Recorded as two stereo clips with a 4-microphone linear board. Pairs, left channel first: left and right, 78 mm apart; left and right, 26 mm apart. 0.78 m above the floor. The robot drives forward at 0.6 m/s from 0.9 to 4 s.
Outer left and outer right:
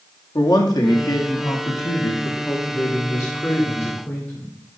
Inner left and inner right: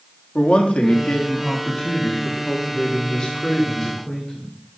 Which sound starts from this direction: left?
A man speaking, at 0.3 s.